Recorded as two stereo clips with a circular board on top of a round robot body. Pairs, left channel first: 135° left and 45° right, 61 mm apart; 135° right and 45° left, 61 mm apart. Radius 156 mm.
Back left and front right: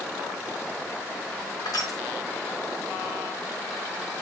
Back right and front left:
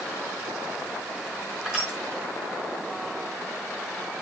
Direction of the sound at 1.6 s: 125° left.